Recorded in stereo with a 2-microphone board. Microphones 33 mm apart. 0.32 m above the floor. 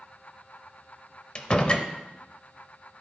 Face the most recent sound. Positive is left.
turn(degrees=35)  # may be behind; listen again after turning